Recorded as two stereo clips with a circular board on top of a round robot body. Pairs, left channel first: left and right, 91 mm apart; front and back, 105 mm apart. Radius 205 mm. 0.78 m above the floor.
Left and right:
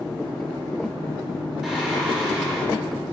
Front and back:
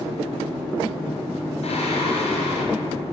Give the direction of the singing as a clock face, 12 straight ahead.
12 o'clock.